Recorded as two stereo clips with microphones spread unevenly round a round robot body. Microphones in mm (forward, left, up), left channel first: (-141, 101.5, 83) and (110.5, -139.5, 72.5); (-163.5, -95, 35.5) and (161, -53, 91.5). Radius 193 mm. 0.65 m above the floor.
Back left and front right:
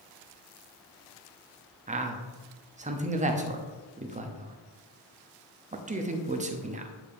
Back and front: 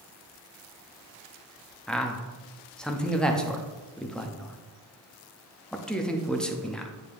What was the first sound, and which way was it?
A man speaking, 100° right.